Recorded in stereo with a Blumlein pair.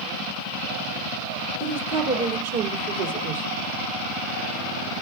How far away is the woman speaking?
About 3 m.